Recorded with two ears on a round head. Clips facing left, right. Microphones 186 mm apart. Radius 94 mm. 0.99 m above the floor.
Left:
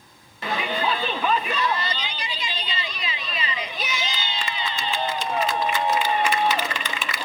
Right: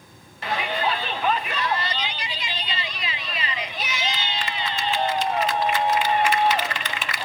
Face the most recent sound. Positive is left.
turn(degrees=80)